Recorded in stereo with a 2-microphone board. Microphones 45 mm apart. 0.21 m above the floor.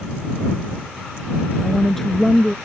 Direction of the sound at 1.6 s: 5° left (ahead or behind).